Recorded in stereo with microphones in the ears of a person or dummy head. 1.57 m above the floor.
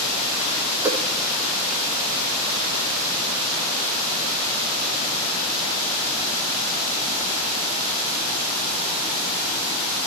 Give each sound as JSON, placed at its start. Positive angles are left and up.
{"t": 0.8, "sound": "a whoosh", "side_deg": -10, "distance_m": 0.7}